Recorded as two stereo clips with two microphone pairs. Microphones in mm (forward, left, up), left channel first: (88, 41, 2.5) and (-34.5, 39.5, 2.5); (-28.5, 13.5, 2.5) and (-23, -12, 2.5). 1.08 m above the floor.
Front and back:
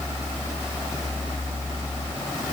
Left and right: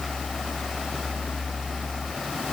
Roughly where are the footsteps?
I don't hear footsteps.